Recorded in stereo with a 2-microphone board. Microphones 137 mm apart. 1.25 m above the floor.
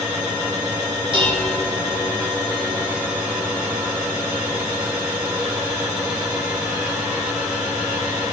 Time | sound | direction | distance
1.1 | dishes clattering | 40° right (ahead or behind) | 2 m